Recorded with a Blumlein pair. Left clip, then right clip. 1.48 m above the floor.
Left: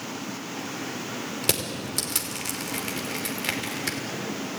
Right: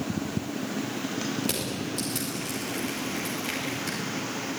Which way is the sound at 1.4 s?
65° left.